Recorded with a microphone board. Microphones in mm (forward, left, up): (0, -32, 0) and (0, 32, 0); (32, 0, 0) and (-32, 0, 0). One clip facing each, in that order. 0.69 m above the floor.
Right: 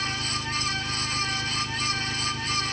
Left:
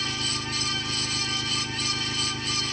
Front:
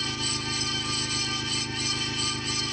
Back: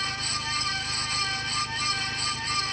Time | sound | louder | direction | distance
0.0 | an engine running | right 1 dB, back 1 dB | 30° left | ?